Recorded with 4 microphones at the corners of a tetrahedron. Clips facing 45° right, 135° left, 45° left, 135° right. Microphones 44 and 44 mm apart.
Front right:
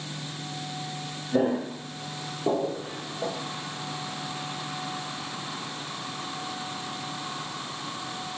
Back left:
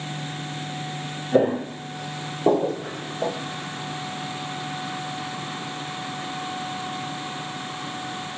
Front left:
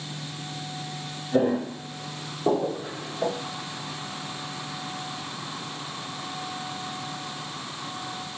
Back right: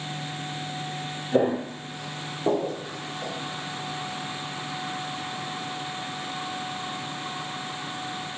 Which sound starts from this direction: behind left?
Footsteps, at 1.3 s.